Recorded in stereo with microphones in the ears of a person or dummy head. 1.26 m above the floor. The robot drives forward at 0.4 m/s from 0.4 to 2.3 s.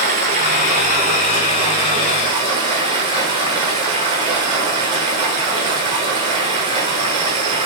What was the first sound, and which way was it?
Running water, 35° right (ahead or behind).